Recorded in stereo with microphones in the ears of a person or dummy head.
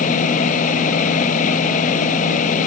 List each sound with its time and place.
0.0 s a fan: 50° left (ahead or behind)